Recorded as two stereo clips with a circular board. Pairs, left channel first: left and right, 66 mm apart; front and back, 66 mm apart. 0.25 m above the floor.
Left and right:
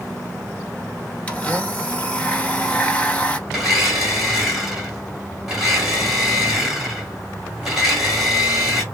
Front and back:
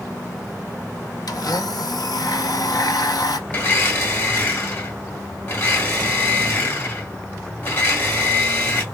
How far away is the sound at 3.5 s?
About 1.7 m.